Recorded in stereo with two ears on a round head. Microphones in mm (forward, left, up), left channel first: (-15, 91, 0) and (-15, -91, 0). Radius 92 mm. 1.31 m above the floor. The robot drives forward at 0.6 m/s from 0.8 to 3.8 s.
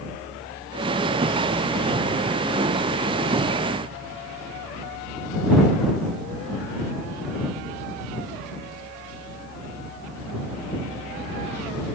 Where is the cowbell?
No cowbell in this recording.